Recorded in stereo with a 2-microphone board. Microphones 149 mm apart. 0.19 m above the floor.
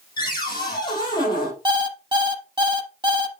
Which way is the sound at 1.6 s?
30° right (ahead or behind).